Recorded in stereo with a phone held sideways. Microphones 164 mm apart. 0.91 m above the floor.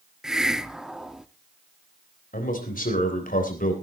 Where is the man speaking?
65° left (ahead or behind), 3.5 m.